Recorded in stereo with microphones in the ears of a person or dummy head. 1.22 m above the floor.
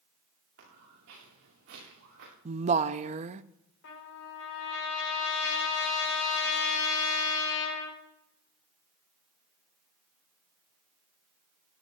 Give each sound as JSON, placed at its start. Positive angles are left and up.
{"t": 0.6, "sound": "footsteps", "side_deg": -75, "distance_m": 7.5}
{"t": 2.5, "sound": "a woman speaking", "side_deg": -30, "distance_m": 0.5}
{"t": 3.8, "sound": "a trumpet", "side_deg": 60, "distance_m": 5.0}